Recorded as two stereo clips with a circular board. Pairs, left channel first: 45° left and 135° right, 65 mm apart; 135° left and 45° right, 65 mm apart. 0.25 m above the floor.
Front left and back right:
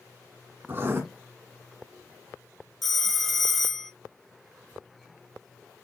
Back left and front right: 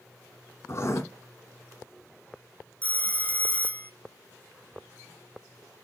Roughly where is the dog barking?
I don't hear a dog barking.